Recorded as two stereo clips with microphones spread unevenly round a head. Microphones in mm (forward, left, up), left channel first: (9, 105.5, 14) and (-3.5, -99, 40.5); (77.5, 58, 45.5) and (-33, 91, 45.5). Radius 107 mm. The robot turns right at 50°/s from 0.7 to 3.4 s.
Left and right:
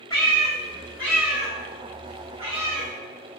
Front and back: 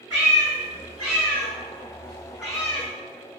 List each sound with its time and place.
0.1 s a cat meowing: 160° left, 1.5 m; by 2.9 s 90° right, 1.5 m